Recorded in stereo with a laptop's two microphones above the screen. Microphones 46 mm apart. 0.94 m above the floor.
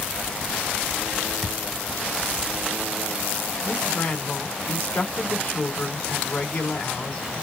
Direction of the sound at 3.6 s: 40° left (ahead or behind).